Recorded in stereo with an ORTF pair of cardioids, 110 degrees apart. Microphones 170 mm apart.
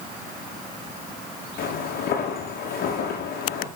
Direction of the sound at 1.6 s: 65° left.